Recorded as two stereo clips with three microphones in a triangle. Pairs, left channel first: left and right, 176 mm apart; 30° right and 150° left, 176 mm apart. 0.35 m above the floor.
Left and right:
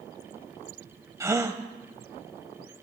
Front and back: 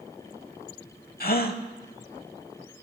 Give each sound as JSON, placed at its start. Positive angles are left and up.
{"t": 1.2, "sound": "a gasp", "azimuth_deg": -20, "distance_m": 0.8}